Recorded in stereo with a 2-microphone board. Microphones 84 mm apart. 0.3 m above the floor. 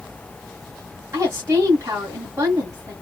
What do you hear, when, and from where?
1.1 s a woman speaking: 35° right (ahead or behind), 1.8 m